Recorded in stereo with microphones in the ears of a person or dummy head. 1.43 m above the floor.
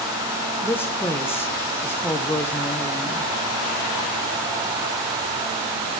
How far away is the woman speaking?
About 1.2 m.